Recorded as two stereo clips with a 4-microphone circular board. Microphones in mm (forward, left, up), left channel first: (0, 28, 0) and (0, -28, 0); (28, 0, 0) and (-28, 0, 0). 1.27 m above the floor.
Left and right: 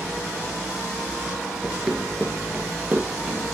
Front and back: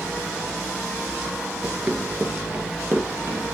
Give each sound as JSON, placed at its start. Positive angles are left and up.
{"t": 1.6, "sound": "running footsteps", "azimuth_deg": -145, "distance_m": 1.3}